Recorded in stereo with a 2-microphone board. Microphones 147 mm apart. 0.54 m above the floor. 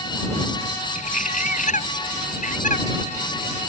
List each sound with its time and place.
0.9 s a bird: 60° left (ahead or behind)